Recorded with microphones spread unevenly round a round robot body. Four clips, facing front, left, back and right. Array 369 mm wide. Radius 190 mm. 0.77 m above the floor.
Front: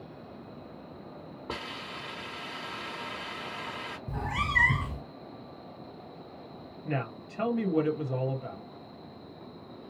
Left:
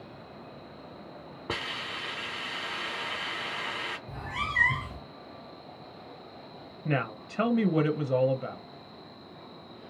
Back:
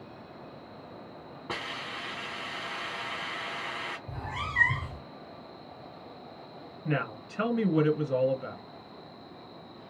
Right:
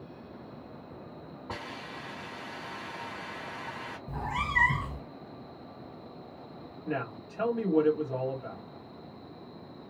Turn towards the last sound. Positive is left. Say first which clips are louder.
# left 4 dB, back 2 dB
turn(degrees=105)